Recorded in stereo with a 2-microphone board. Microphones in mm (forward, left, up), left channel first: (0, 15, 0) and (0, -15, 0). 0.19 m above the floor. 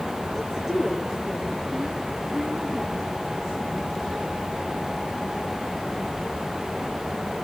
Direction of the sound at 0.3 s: 10° right (ahead or behind).